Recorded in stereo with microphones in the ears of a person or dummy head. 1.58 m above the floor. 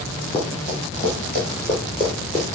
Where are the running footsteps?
15° left (ahead or behind), 1.7 m; by 2.5 s 5° right (ahead or behind), 1.7 m.